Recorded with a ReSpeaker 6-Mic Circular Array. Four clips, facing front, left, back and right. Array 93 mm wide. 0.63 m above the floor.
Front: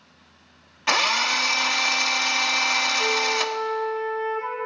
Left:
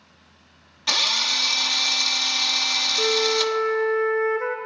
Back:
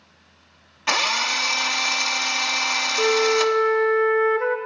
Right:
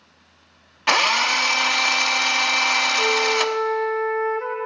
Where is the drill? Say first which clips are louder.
Right 9 dB, front 1 dB; 85° right, 0.6 m.